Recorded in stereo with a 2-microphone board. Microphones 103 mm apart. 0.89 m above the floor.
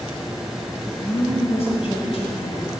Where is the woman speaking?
70° left (ahead or behind), 5 m.